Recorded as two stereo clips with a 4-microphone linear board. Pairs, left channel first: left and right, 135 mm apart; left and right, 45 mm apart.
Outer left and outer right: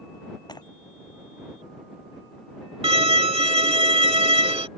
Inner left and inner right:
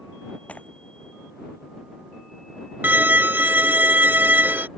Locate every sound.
0.5 s breaking glass: 30° left (ahead or behind)
2.8 s a violin: 45° right (ahead or behind)